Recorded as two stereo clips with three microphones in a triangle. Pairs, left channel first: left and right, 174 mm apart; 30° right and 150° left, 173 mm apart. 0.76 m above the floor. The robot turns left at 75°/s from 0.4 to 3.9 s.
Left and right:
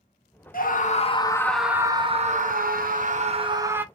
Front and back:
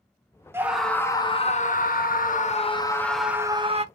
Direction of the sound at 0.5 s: 80° left.